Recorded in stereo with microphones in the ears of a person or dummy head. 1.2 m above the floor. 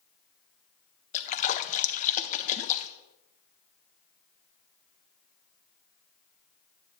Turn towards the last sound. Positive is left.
turn(degrees=35)  # may be behind; listen again after turning